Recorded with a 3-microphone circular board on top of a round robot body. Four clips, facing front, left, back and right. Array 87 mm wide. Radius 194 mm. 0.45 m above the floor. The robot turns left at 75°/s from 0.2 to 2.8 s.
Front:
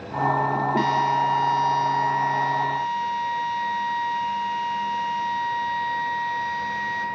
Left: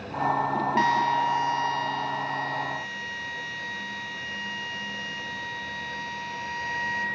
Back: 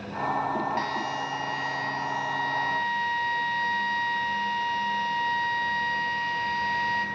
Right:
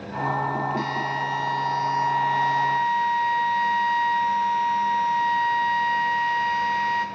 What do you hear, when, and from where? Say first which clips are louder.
0.8 s a drill: left 4 dB, front 9 dB; 70° left, 2 m; by 7.0 s 80° right, 2 m